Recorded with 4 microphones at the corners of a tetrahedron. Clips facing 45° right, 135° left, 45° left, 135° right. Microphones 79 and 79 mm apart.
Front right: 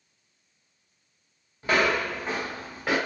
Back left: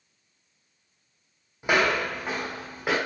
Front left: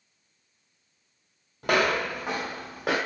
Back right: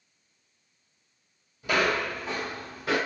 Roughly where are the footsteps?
Ahead left.